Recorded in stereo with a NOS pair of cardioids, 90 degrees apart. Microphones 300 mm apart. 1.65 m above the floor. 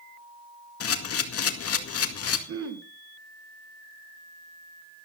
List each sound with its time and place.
0.8 s a camera shutter: 50° left, 2 m
2.5 s throat clearing: 50° right, 2.5 m